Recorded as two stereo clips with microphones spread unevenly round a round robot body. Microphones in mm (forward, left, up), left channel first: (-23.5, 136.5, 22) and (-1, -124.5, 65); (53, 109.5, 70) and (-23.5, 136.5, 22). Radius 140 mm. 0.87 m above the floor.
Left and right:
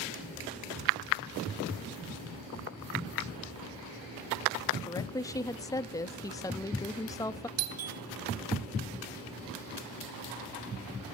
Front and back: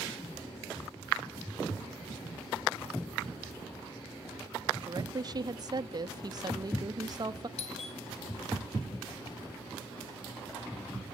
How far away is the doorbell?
About 2 m.